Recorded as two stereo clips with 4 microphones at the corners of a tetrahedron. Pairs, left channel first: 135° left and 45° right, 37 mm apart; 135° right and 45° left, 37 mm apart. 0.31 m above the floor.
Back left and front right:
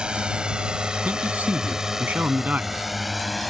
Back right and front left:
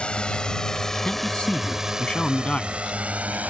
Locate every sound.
0.0 s a drone: 95° right; by 3.5 s 45° left
1.1 s a man speaking: 80° right